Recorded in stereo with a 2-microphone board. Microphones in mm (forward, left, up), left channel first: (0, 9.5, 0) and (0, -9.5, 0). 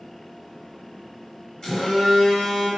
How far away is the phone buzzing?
About 1.7 m.